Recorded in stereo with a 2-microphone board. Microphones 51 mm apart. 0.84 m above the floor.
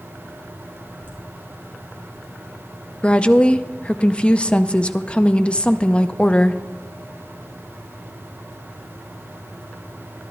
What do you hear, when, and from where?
1.0 s laughter: 35° right (ahead or behind), 4.5 m
3.0 s a woman speaking: 25° left (ahead or behind), 0.5 m